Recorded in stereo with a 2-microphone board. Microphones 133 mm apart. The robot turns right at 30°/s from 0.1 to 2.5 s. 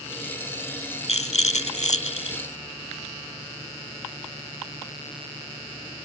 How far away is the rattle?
About 0.6 m.